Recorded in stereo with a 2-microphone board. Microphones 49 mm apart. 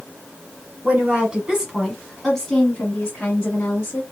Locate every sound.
0.8 s a woman speaking: 30° right (ahead or behind), 1.2 m; by 4.0 s 35° left (ahead or behind), 1.6 m